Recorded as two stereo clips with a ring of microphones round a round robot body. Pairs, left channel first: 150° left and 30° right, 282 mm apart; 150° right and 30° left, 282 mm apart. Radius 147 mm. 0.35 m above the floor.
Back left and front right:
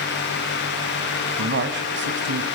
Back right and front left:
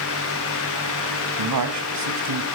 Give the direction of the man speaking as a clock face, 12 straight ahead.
11 o'clock.